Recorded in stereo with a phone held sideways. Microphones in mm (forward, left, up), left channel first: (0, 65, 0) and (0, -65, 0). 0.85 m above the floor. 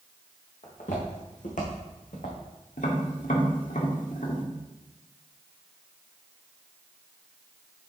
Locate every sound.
0.6 s footsteps: 70° left (ahead or behind), 4 m; by 2.4 s 75° left (ahead or behind), 3 m
2.8 s tapping: 80° left, 1.7 m